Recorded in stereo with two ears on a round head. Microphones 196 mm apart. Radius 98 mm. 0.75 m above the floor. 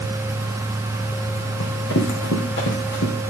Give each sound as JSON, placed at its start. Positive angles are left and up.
{"t": 1.6, "sound": "running footsteps", "side_deg": 60, "distance_m": 3.5}